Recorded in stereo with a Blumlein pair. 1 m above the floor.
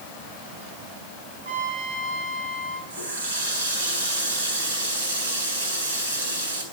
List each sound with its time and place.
1.4 s a trumpet: 70° right, 4 m
2.9 s a running tap: 65° right, 5 m